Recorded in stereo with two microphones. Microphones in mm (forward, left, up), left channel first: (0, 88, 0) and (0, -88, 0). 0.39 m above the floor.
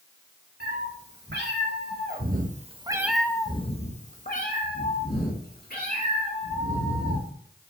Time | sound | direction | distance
0.6 | a cat meowing | 75° right (ahead or behind) | 2 m